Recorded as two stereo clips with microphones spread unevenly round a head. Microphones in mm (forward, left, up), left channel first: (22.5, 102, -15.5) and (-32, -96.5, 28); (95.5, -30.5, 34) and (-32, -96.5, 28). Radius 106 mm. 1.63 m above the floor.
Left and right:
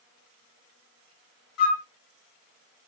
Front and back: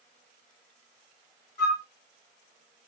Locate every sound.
1.6 s a flute: 95° left, 2 m